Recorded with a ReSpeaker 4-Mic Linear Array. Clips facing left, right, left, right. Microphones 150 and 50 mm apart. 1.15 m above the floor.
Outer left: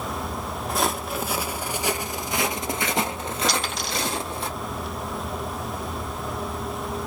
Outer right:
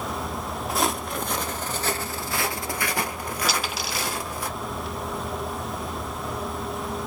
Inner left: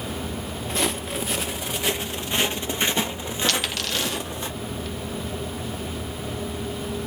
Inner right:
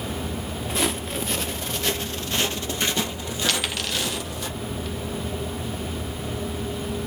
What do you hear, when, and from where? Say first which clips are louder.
0.7 s footsteps: even, even; centre (ahead or behind), 1.2 m; by 4.5 s 25° left (ahead or behind), 2 m
3.5 s a dropped coin: outer left 1 dB, inner right 1 dB; 5° right (ahead or behind), 1.6 m